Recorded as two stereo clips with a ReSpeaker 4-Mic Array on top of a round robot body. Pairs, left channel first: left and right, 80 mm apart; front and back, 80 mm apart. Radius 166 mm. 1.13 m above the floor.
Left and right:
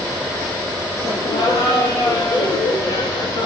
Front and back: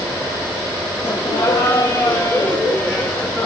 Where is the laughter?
45° left, 2.5 m; by 3.5 s 85° left, 2.5 m.